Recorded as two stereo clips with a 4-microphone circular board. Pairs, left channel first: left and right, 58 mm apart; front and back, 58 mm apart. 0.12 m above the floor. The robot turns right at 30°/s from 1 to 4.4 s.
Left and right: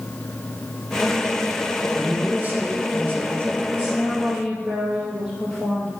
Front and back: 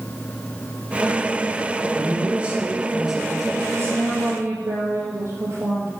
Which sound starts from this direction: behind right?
A man speaking, at 1.9 s.